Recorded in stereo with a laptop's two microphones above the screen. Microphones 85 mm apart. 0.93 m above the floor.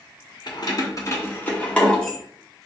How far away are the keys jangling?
About 0.9 m.